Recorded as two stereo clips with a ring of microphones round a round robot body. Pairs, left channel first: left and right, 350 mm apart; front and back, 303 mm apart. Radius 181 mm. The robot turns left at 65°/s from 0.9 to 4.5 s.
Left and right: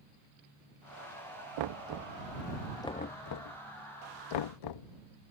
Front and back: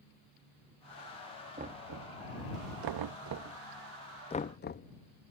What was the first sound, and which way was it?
Knocking, 105° right.